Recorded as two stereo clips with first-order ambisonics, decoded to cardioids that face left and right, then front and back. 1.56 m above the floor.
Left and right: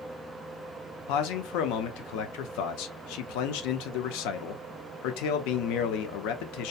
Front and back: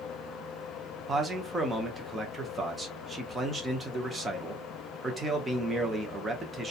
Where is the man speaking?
105° left, 0.6 m.